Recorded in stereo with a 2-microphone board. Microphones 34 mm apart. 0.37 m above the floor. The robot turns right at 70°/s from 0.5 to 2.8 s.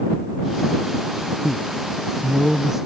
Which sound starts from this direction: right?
A man speaking, at 1.4 s.